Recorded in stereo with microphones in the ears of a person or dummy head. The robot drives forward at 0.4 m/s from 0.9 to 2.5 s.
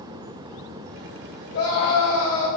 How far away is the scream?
About 8 m.